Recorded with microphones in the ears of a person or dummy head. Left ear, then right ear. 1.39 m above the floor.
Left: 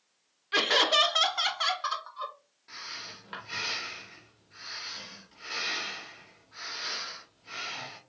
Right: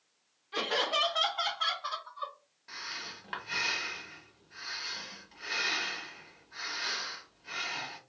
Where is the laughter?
55° left (ahead or behind), 0.8 m; by 2.3 s 60° left (ahead or behind), 1.3 m.